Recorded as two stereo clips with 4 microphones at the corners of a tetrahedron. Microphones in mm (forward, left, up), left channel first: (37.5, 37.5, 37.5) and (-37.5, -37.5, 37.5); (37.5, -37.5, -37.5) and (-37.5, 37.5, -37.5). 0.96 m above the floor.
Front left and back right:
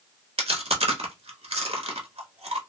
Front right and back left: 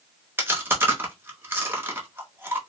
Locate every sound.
0.4 s chewing: 155° right, 0.7 m